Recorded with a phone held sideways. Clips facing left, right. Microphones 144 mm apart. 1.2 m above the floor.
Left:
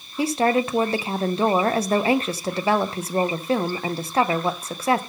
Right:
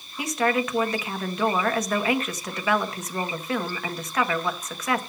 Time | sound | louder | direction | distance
0.2 | a woman speaking | left 4 dB | 30° left (ahead or behind) | 0.8 m